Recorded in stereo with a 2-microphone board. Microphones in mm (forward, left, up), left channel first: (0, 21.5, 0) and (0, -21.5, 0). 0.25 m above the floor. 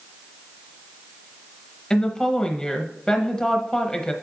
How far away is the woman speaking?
About 1.0 m.